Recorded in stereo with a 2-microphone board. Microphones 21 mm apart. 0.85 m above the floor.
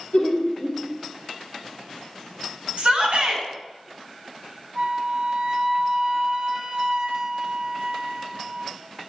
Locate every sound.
0.1 s laughter: 60° left (ahead or behind), 1.4 m
2.8 s a shout: 60° right (ahead or behind), 1.9 m
4.8 s a flute: 45° right (ahead or behind), 0.8 m